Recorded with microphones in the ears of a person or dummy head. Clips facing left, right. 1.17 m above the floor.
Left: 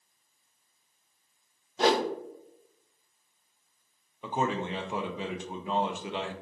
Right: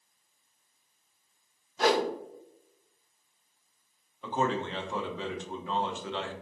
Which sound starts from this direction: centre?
A man speaking, at 4.2 s.